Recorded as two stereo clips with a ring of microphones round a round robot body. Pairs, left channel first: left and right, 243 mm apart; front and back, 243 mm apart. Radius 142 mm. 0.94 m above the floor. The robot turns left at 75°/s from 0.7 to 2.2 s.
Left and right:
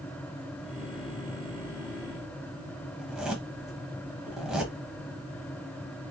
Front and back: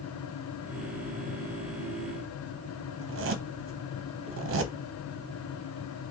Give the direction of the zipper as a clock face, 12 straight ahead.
6 o'clock.